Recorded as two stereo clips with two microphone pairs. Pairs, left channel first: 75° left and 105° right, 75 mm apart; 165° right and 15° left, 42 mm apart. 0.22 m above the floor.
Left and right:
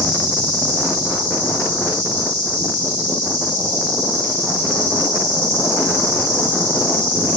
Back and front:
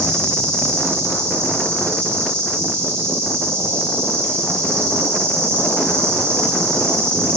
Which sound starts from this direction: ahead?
An insect, at 0.0 s.